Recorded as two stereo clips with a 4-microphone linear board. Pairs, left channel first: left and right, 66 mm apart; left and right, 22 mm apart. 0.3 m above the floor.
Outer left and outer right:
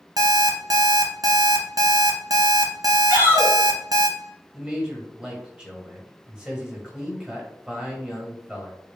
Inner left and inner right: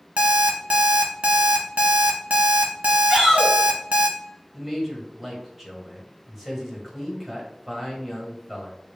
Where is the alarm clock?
65° right (ahead or behind), 0.7 m.